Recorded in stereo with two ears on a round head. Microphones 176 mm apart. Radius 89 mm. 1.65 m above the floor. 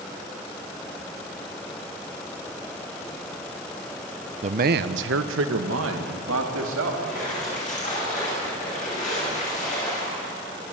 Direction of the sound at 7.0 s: 45° left (ahead or behind).